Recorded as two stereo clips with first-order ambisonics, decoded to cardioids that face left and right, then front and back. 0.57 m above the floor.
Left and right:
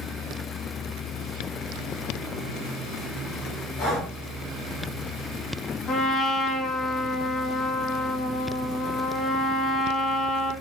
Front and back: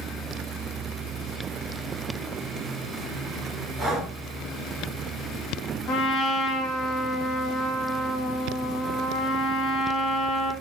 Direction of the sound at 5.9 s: 30° left.